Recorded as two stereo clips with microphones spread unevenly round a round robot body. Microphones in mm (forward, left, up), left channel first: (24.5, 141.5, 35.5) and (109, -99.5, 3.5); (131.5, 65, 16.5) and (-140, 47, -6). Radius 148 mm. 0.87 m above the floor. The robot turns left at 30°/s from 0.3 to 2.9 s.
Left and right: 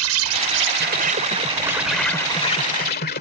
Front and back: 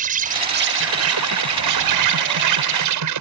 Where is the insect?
110° right; by 3.2 s 170° left.